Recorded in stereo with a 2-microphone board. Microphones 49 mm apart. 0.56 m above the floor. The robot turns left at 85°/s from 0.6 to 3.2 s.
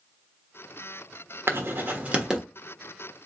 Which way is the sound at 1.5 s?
60° right (ahead or behind).